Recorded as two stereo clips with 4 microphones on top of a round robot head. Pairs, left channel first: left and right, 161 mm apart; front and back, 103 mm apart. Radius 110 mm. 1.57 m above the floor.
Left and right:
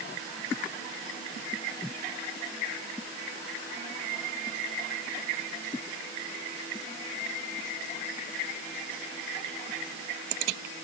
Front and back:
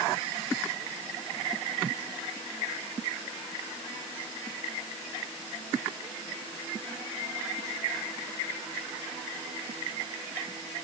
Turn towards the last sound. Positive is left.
No sound to turn to.